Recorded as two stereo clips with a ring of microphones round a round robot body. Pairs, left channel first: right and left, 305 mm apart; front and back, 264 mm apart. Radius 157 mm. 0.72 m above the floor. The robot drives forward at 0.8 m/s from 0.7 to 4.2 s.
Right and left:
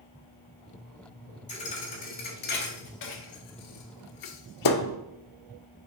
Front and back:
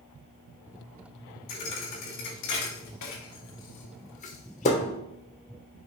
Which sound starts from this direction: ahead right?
A thud, at 1.5 s.